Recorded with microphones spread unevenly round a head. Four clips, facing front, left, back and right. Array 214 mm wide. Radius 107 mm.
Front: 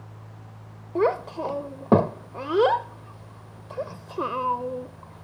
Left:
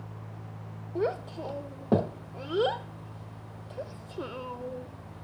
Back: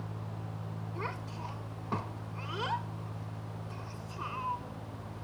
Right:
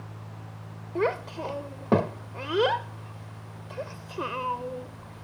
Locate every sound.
0.9 s a child speaking: 10° right